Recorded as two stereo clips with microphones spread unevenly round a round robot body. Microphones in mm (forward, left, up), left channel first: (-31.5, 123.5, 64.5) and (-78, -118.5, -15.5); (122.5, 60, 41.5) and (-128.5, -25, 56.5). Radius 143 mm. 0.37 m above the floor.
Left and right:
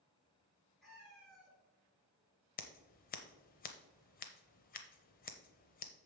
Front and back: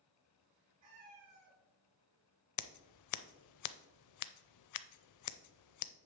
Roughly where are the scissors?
Ahead.